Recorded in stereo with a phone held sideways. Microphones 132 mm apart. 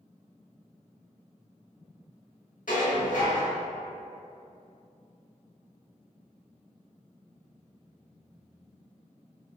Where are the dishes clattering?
80° left, 1.3 m.